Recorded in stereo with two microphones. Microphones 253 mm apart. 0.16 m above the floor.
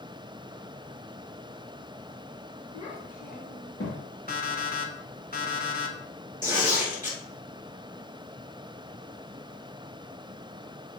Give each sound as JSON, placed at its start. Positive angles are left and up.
{"t": 2.7, "sound": "a child speaking", "side_deg": 20, "distance_m": 1.9}
{"t": 4.3, "sound": "an alarm clock", "side_deg": 35, "distance_m": 0.8}
{"t": 6.4, "sound": "tearing paper", "side_deg": 35, "distance_m": 1.9}